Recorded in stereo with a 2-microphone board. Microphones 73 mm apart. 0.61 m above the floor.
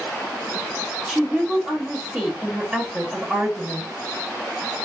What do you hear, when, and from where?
1.1 s a woman speaking: 10° right (ahead or behind), 1.0 m